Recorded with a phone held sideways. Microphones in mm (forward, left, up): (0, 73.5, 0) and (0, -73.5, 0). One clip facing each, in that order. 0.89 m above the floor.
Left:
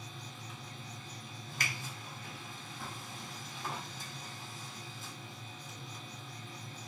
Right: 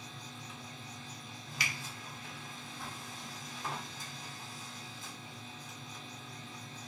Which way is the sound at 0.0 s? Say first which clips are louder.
Even; centre (ahead or behind).